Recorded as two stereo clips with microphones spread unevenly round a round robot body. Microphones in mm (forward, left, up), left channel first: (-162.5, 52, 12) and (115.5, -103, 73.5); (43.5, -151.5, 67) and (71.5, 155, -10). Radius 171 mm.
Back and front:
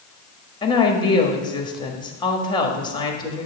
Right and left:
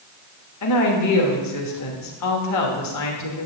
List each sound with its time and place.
0.6 s a woman speaking: 140° right, 1.5 m